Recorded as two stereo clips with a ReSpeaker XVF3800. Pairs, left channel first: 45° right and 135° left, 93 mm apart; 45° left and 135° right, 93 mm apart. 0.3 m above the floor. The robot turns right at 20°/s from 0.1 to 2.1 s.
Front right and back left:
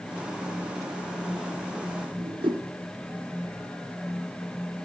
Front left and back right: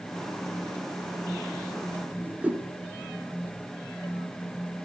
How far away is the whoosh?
About 1.1 m.